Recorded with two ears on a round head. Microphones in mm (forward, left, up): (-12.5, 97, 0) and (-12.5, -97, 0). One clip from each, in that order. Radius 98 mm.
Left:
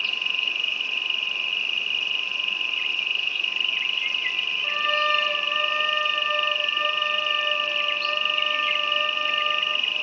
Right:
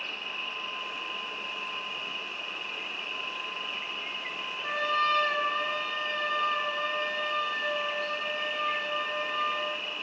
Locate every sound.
0.0 s an insect: 75° left (ahead or behind), 0.8 m
4.6 s a trumpet: 10° right (ahead or behind), 5 m